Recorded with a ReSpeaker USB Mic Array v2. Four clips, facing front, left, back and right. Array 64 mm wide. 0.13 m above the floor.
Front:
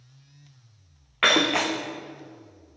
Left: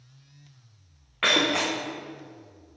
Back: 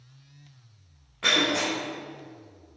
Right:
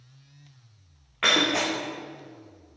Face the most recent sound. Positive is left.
turn(degrees=5)